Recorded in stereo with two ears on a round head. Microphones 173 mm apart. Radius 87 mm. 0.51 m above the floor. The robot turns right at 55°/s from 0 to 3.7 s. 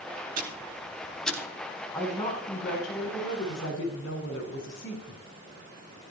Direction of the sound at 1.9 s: 5° left.